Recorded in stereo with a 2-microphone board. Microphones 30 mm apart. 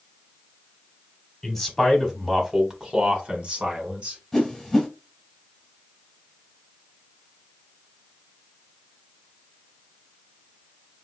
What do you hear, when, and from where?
1.4 s a man speaking: 10° left (ahead or behind), 1.1 m; by 4.2 s 40° right (ahead or behind), 1.7 m
4.3 s a whoosh: 15° left (ahead or behind), 1.4 m